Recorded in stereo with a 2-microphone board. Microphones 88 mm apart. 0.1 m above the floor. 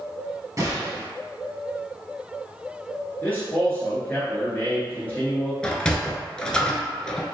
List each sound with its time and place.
0.6 s a gunshot: 35° right (ahead or behind), 1.3 m
3.2 s a man speaking: 20° left (ahead or behind), 1.5 m
5.6 s a sliding door: 10° left (ahead or behind), 0.5 m